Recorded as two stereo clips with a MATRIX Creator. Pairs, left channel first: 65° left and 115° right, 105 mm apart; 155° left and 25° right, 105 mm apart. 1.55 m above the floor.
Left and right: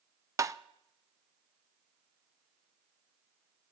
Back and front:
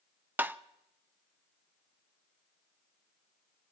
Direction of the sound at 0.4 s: 80° right.